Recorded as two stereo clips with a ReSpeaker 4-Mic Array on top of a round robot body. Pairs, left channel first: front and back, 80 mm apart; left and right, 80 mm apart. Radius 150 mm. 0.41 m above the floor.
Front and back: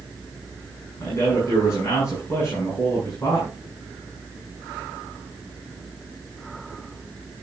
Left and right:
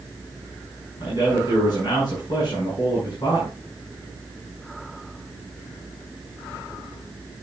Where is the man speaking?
55° left, 6.5 m.